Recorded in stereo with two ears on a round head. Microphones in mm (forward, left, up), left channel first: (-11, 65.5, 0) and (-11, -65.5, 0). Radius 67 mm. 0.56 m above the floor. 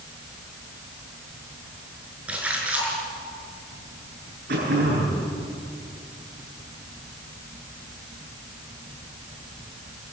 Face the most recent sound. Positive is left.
turn(degrees=-75)  # may be behind; listen again after turning